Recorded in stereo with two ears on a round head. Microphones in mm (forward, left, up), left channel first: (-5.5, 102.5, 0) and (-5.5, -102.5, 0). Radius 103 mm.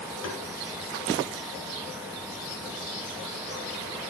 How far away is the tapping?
About 4.5 m.